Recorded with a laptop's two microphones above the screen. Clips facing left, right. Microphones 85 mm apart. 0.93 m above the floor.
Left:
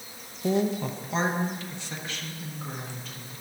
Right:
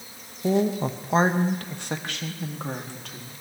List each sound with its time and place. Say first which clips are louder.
0.4 s a woman speaking: right 3 dB; 10° right (ahead or behind), 0.9 m; by 3.3 s 70° right (ahead or behind), 2.5 m